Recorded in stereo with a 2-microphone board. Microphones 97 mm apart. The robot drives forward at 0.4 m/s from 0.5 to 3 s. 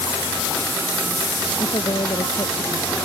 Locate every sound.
1.6 s a woman speaking: 50° left (ahead or behind); by 3.0 s 55° left (ahead or behind)